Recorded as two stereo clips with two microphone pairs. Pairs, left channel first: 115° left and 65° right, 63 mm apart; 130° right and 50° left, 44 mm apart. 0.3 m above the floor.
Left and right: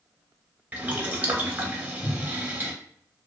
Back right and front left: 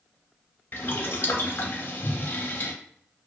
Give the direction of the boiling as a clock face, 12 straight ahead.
4 o'clock.